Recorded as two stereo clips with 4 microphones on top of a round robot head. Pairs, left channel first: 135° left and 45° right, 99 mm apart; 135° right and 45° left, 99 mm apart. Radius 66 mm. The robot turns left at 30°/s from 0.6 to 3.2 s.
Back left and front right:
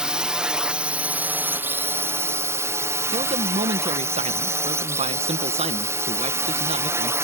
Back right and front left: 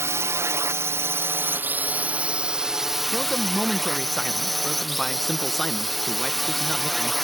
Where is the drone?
30° left; by 7.2 s 50° right.